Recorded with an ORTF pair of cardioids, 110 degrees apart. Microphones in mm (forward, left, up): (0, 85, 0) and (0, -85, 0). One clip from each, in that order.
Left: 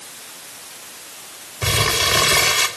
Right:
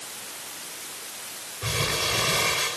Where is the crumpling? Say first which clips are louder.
Left 8 dB; 70° left, 3 m.